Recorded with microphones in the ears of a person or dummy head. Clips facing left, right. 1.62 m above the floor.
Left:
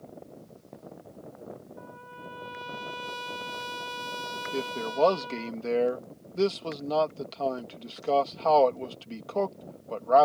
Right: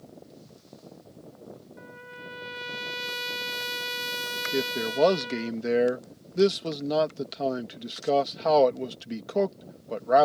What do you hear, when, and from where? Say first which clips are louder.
1.8 s a trumpet: even; 25° right (ahead or behind)
4.5 s a man speaking: right 3 dB; 15° right (ahead or behind)